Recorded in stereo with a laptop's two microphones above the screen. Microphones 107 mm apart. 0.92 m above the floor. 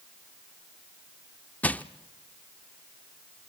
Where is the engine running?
No engine running in this recording.